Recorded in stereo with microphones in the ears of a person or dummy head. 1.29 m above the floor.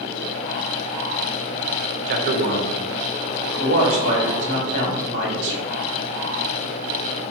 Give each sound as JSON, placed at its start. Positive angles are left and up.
{"t": 2.1, "sound": "a man speaking", "side_deg": -50, "distance_m": 0.7}
{"t": 3.6, "sound": "a man speaking", "side_deg": -70, "distance_m": 1.4}